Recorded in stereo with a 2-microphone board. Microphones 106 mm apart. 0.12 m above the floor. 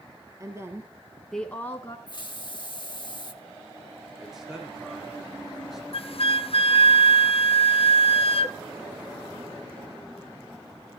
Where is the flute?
65° left (ahead or behind), 0.7 m.